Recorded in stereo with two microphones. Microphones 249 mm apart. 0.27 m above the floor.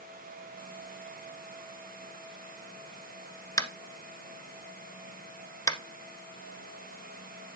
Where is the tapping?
15° left (ahead or behind), 1.1 m.